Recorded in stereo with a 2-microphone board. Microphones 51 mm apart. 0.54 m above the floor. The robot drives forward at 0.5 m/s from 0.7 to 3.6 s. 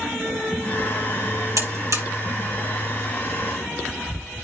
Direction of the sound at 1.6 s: 80° right.